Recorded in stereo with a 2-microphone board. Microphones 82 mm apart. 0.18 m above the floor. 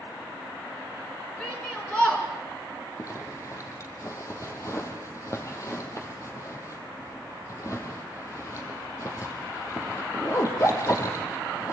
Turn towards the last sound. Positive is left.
turn(degrees=35)  # may be behind; listen again after turning